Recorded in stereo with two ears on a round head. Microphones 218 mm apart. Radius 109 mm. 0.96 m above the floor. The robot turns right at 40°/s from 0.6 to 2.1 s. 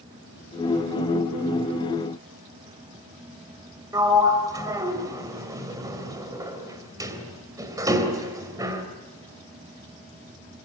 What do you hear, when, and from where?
3.9 s a sliding door: 15° right (ahead or behind), 3 m